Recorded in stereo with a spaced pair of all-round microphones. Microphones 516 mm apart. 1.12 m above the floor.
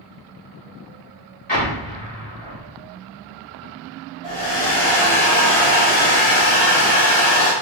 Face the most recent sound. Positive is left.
turn(degrees=80)